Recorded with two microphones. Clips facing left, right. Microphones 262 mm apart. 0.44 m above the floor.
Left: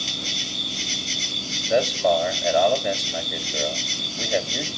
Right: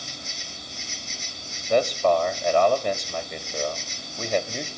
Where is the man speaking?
5° left (ahead or behind), 2 m.